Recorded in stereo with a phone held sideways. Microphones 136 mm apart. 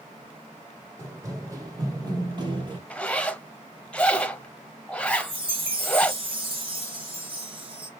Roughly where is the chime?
Right.